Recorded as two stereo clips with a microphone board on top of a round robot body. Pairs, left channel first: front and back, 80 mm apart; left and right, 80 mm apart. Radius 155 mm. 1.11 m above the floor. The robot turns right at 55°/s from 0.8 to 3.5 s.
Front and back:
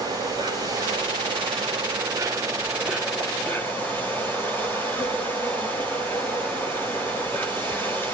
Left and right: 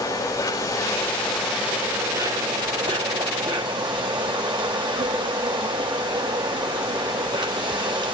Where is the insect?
145° left, 7.5 m; by 8.1 s 65° right, 7.5 m.